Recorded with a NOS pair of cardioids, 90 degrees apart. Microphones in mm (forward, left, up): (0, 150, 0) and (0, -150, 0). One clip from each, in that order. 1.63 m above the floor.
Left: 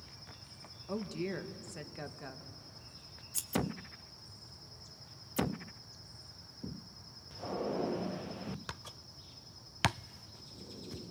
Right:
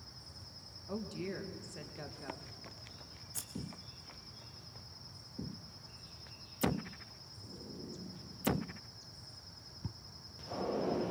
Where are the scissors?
35° left, 1.5 m.